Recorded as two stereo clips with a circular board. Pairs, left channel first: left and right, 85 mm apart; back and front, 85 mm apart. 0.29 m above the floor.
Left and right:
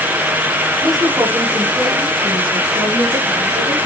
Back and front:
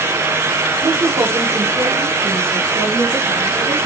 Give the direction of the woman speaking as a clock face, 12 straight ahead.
1 o'clock.